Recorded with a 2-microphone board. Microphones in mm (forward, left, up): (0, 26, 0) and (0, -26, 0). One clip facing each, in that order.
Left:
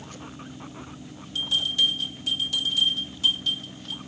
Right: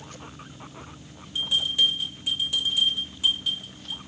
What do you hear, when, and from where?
1.4 s a bell: 15° right (ahead or behind), 2.0 m